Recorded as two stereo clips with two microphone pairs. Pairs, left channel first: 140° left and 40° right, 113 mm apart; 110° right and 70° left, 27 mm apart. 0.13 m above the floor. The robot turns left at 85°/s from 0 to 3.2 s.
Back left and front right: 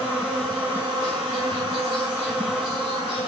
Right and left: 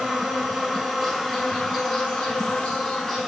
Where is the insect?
95° left, 5.5 m; by 3.3 s straight behind, 5.5 m.